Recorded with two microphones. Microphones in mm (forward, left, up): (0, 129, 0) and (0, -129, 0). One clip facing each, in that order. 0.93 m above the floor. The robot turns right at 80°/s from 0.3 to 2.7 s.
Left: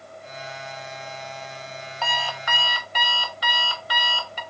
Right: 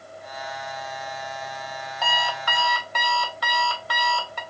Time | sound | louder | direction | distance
2.0 | an alarm clock | right 2 dB | straight behind | 0.8 m